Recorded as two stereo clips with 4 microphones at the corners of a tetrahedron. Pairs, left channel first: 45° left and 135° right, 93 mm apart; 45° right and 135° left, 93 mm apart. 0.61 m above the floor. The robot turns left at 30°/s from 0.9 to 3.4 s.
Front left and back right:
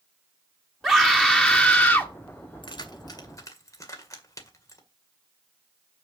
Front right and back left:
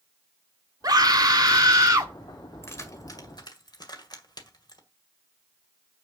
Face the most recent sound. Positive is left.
turn(degrees=-10)